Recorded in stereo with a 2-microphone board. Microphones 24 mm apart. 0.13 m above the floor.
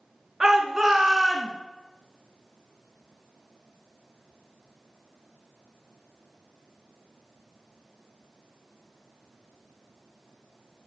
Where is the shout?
20° right (ahead or behind), 1.6 m; by 1.5 s 15° right (ahead or behind), 1.5 m.